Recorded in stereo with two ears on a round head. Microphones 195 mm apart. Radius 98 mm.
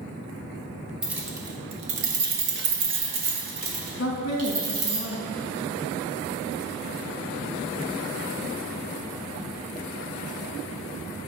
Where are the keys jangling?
5° right (ahead or behind), 1.1 m; by 5.0 s 80° right, 2.5 m.